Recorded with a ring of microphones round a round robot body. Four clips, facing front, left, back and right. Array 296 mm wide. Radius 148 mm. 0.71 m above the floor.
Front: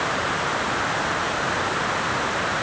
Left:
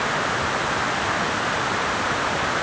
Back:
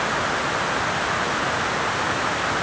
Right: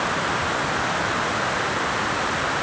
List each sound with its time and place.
Only background noise.